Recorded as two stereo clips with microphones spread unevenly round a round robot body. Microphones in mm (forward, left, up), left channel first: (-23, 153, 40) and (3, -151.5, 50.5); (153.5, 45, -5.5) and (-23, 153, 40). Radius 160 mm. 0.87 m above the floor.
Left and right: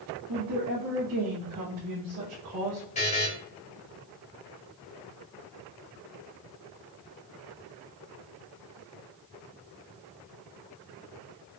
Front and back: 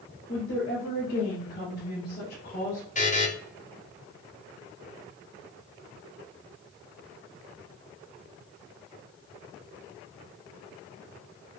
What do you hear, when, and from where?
0.3 s a woman speaking: 70° right, 2 m; by 2.8 s 60° right, 1.0 m
3.0 s a buzzer: 25° left, 1.0 m